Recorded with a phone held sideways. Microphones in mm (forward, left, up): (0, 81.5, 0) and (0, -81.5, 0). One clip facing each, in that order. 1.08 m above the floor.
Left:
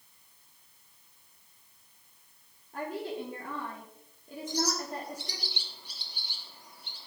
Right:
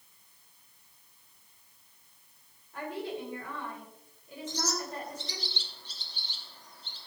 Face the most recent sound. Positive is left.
turn(degrees=10)  # may be behind; listen again after turning